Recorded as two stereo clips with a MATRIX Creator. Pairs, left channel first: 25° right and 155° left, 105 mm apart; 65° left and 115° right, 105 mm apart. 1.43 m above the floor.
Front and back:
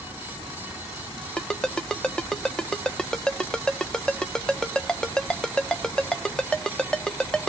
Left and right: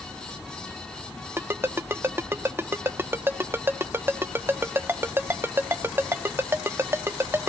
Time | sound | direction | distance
1.4 | a ringtone | 95° right | 0.5 m